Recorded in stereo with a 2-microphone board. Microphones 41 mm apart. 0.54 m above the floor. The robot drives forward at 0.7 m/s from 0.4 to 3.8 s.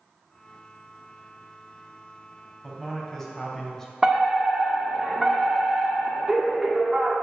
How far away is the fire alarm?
About 1.8 m.